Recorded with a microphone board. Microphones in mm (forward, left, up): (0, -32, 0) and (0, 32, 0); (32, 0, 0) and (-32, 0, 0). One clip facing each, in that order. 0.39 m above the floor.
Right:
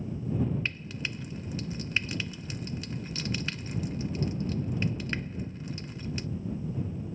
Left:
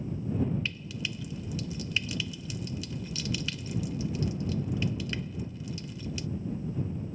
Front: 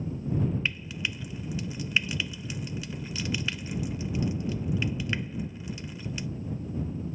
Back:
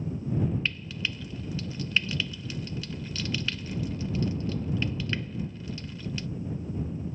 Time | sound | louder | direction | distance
0.7 | frying | right 1 dB, even | 70° right | ?